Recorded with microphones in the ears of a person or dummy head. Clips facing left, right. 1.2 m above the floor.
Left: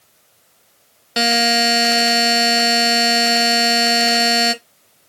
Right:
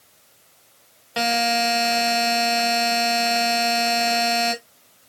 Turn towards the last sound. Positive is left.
turn(degrees=30)  # may be behind; listen again after turning